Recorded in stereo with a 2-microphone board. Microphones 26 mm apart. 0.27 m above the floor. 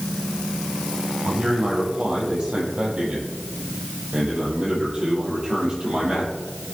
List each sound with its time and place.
1.2 s a man speaking: 55° right (ahead or behind), 8 m; by 6.3 s 35° right (ahead or behind), 8 m